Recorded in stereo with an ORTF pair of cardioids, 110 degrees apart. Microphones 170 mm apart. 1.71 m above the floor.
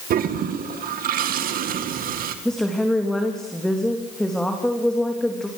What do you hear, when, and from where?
0.1 s a toilet flushing: 60° right, 2 m
2.5 s a woman speaking: 5° left, 3.5 m